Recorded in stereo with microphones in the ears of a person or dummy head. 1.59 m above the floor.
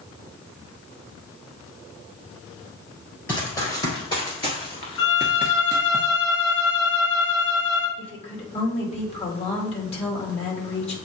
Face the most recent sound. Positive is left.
turn(degrees=35)  # may be behind; listen again after turning